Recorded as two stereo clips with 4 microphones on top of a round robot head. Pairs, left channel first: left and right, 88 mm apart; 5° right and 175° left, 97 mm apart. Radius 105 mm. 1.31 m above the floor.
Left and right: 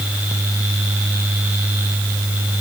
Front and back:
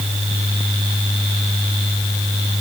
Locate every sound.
Only background noise.